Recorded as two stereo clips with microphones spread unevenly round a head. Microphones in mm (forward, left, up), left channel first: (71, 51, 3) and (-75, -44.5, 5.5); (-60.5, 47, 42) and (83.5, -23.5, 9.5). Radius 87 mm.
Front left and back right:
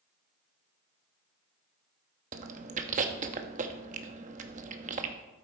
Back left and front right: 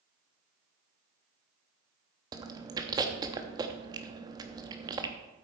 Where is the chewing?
100° right, 0.9 m.